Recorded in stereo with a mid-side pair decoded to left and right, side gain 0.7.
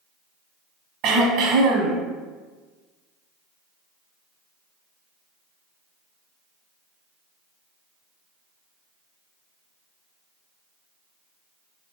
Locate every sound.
1.0 s throat clearing: 60° right, 0.8 m